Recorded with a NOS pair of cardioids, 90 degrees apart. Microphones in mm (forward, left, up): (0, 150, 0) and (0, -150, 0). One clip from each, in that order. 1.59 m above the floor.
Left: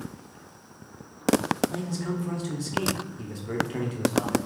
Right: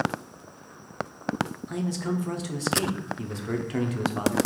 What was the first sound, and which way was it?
A man speaking, 20° right.